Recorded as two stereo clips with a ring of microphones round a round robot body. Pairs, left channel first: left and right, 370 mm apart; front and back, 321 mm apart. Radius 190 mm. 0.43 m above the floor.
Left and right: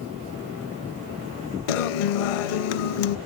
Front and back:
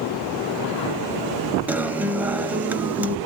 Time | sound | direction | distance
1.7 | a guitar | 95° left | 0.6 m